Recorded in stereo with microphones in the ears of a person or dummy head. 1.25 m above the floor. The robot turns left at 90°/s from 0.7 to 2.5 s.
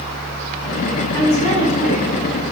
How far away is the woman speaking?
About 4 m.